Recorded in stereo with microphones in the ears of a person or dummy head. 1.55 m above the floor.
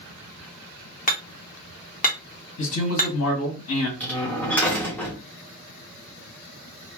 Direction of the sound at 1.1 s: 35° left (ahead or behind).